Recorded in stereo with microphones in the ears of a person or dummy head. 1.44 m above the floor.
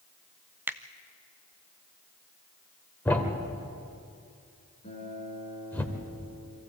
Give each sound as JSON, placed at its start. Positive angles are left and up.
{"t": 0.7, "sound": "a finger snap", "side_deg": -15, "distance_m": 0.6}
{"t": 3.0, "sound": "a thud", "side_deg": 10, "distance_m": 1.9}
{"t": 4.8, "sound": "a guitar", "side_deg": 35, "distance_m": 8.5}